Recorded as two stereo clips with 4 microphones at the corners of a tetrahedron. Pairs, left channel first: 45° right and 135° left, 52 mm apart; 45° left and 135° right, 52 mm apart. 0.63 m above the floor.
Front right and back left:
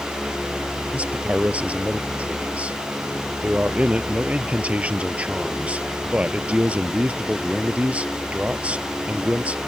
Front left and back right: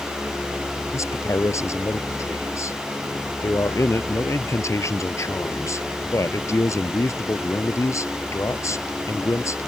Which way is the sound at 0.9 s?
70° left.